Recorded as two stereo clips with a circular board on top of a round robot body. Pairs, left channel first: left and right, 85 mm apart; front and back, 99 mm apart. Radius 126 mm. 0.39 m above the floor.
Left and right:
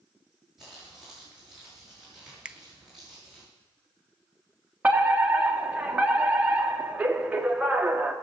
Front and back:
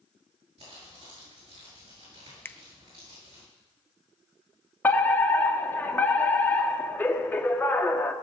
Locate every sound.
0.6 s crumpling: 175° right, 7.5 m
2.5 s a finger snap: 30° right, 0.7 m
4.8 s a fire alarm: 40° right, 1.8 m